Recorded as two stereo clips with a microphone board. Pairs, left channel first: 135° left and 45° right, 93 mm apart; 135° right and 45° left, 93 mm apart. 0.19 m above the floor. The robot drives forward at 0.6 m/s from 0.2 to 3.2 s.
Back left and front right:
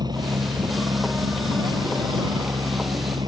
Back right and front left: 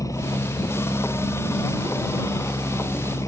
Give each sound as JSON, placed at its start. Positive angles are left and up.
{"t": 0.0, "sound": "a helicopter", "azimuth_deg": -85}